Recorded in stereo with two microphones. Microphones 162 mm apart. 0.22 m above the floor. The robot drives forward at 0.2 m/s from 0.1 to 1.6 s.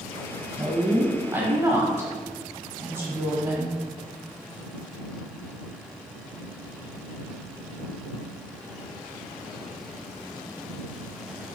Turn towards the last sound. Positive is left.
turn(degrees=-20)  # may be behind; listen again after turning